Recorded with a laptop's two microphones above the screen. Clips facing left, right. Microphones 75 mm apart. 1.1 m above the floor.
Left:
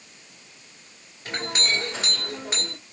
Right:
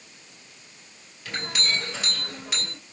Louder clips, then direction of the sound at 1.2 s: Left 2 dB; 35° left (ahead or behind).